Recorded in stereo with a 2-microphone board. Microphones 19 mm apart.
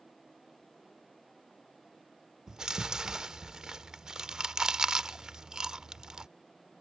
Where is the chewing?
45° right (ahead or behind).